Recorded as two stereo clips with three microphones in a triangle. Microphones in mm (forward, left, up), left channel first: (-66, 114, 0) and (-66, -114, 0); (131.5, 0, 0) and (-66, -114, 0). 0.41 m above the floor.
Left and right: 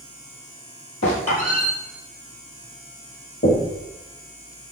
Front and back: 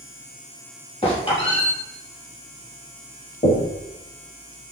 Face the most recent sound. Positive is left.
turn(degrees=80)